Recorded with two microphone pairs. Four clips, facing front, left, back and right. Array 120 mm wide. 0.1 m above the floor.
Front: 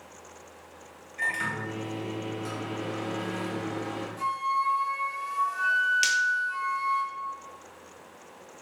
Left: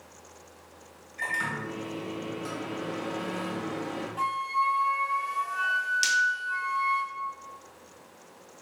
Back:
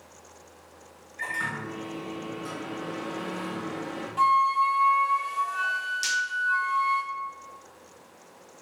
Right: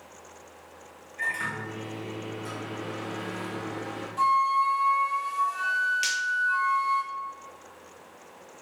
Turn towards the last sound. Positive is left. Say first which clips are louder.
# left 2 dB, front 4 dB
turn(degrees=10)